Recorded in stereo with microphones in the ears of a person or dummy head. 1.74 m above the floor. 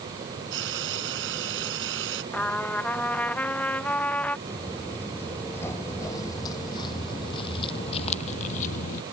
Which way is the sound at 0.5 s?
70° right (ahead or behind).